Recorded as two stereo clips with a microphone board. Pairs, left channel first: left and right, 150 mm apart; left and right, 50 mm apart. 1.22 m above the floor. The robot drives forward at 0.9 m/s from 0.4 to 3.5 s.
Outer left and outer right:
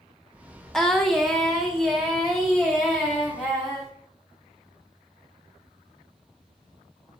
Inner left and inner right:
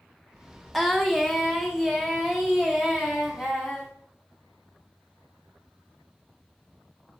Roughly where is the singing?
Centre.